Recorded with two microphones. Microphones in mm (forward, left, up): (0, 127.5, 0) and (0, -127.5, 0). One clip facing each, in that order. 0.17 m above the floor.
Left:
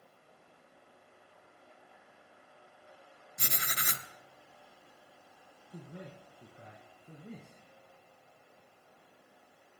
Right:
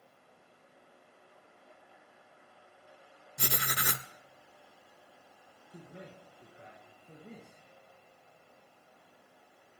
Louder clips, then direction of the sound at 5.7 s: Left 2 dB; 45° left (ahead or behind).